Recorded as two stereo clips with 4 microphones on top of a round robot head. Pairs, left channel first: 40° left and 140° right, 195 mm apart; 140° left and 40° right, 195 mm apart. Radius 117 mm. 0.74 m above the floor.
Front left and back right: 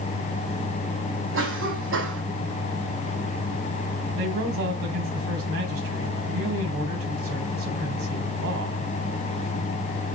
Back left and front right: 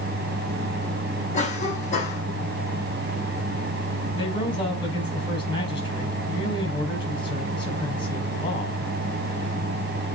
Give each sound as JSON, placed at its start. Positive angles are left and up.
{"t": 1.3, "sound": "a cough", "azimuth_deg": -160, "distance_m": 5.5}
{"t": 4.2, "sound": "a man speaking", "azimuth_deg": -150, "distance_m": 4.5}